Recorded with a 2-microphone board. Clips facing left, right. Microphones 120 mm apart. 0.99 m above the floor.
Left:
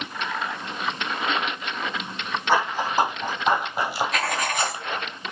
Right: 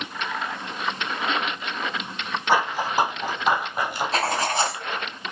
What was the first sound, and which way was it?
Running footsteps, 10° right (ahead or behind).